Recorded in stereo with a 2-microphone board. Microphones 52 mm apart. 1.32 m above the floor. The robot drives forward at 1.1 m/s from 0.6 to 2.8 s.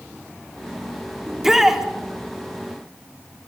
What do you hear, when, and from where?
1.3 s a shout: 5° right (ahead or behind), 3.5 m